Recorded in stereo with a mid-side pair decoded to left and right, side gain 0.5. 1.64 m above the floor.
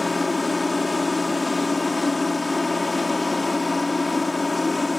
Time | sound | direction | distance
0.0 | a machine running | 20° left | ?